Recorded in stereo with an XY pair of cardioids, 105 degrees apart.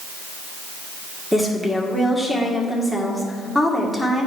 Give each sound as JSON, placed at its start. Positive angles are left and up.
{"t": 1.3, "sound": "a woman speaking", "azimuth_deg": 0, "distance_m": 1.9}